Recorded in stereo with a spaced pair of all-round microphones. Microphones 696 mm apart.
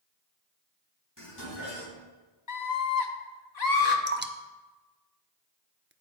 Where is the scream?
70° left (ahead or behind), 1.2 m.